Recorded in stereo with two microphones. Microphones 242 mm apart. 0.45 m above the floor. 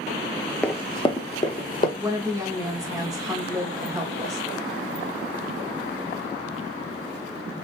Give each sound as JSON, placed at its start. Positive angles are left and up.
{"t": 0.6, "sound": "running footsteps", "side_deg": 5, "distance_m": 0.5}
{"t": 2.0, "sound": "a woman speaking", "side_deg": -15, "distance_m": 0.7}